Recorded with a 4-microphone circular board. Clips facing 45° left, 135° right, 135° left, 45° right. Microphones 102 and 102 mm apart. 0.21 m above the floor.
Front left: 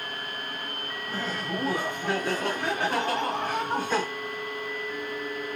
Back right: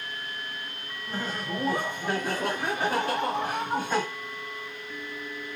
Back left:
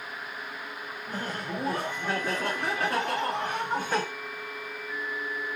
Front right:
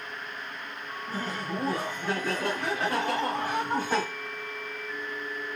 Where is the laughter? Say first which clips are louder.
Even, front right 1 dB; 155° left, 1.9 m; by 4.0 s 60° right, 1.6 m.